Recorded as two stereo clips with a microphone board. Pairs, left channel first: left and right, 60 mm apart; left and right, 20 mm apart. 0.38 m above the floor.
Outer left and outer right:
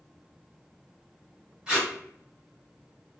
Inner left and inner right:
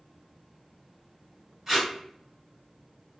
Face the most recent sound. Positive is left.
turn(degrees=-10)  # may be behind; listen again after turning